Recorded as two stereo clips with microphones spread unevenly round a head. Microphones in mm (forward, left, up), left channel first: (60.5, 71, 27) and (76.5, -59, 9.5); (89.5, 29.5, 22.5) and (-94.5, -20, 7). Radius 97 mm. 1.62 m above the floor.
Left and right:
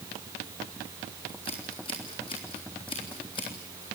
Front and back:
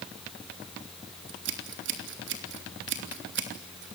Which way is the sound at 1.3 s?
165° left.